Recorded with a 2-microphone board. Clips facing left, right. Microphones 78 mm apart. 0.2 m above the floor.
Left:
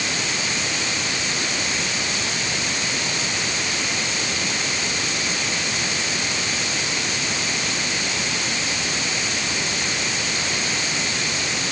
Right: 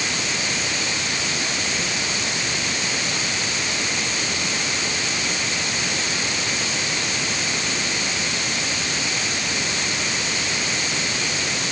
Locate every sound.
Only background noise.